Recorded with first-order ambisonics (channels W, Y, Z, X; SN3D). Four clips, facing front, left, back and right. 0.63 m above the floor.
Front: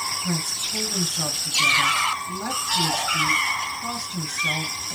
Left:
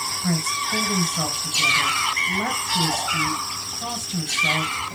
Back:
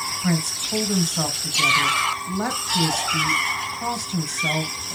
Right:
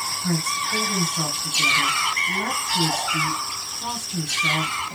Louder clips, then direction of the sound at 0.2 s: Even, back 2 dB; 170° left.